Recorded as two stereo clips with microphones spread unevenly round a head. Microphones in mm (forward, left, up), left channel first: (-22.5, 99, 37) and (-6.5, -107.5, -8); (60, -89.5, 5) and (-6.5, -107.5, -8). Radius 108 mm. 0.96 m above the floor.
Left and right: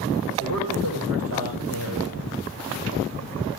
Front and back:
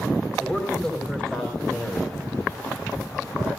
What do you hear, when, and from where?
0.4 s a man speaking: 60° right, 5.5 m; by 2.3 s 65° right, 6.5 m